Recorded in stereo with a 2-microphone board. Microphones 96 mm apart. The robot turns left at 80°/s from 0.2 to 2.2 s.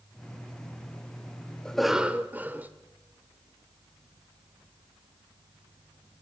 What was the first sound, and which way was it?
A cough, 15° left.